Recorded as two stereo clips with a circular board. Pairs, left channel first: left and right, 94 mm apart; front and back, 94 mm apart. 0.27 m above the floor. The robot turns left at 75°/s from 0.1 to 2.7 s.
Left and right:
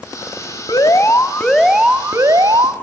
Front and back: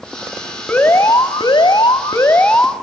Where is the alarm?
65° left, 1.2 m; by 2.7 s 85° right, 1.2 m.